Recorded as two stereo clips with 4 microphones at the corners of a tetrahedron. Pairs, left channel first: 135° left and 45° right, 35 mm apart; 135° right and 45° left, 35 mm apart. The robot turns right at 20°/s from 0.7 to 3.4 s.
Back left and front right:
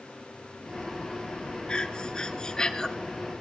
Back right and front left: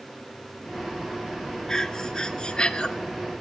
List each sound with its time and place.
1.7 s breathing: 165° left, 0.5 m; by 2.9 s 175° right, 0.5 m